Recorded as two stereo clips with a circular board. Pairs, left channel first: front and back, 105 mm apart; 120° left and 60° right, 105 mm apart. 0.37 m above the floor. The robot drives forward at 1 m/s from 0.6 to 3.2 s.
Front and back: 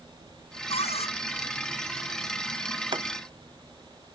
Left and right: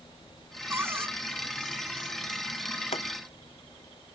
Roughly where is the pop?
Behind left.